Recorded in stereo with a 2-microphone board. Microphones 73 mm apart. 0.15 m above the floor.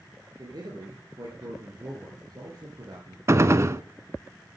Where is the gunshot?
40° right (ahead or behind), 0.6 m.